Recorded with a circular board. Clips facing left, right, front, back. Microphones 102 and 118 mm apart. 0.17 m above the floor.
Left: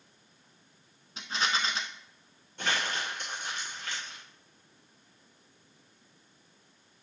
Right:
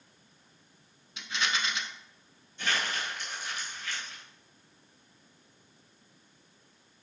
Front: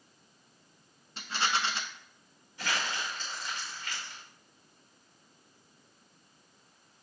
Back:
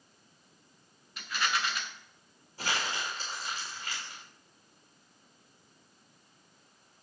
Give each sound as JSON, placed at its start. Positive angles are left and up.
{"t": 1.2, "sound": "a rattle", "azimuth_deg": 50, "distance_m": 0.9}
{"t": 2.6, "sound": "crumpling", "azimuth_deg": 125, "distance_m": 2.5}